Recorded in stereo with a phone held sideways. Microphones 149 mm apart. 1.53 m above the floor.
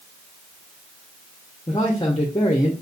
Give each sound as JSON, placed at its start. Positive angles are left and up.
{"t": 1.7, "sound": "a man speaking", "side_deg": 30, "distance_m": 0.8}